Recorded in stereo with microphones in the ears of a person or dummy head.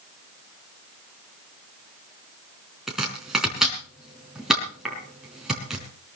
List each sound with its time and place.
2.9 s chopping: 5° left (ahead or behind), 4 m